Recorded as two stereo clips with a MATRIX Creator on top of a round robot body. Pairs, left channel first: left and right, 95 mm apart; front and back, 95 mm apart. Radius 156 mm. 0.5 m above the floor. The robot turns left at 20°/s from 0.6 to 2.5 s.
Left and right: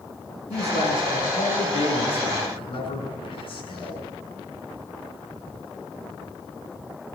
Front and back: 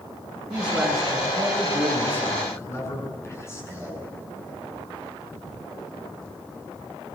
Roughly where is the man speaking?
Left.